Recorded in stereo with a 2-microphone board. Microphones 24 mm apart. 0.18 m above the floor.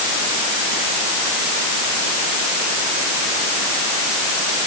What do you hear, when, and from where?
Only background noise.